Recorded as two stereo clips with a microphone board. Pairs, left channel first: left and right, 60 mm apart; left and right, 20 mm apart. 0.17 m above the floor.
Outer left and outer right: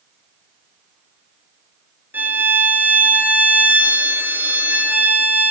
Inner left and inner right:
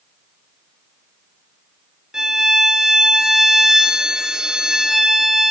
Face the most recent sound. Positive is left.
turn(degrees=-30)  # may be behind; listen again after turning